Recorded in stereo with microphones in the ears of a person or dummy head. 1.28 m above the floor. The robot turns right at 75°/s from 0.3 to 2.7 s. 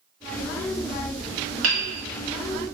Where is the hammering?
80° right, 1.5 m; by 2.7 s 20° right (ahead or behind), 1.5 m.